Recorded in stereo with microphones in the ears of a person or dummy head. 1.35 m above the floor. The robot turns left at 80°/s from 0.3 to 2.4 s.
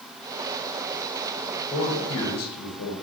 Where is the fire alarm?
No fire alarm in this recording.